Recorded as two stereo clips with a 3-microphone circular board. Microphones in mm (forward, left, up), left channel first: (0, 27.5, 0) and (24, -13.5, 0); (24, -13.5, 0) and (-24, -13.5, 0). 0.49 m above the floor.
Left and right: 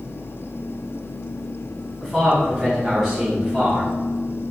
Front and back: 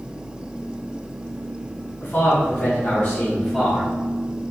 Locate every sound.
2.0 s a man speaking: 20° left, 2.0 m; by 3.9 s 125° right, 1.1 m